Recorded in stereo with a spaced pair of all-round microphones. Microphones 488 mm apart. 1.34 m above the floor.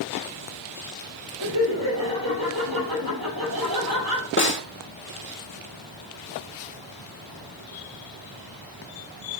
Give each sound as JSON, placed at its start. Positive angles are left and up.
{"t": 1.4, "sound": "laughter", "side_deg": -45, "distance_m": 8.0}
{"t": 4.4, "sound": "a snare drum", "side_deg": 25, "distance_m": 1.3}